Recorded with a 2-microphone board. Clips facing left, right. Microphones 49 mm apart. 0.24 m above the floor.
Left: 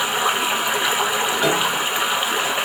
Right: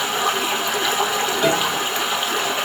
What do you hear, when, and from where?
0.0 s running water: 20° left (ahead or behind), 0.7 m
1.4 s a piano: 5° left (ahead or behind), 0.7 m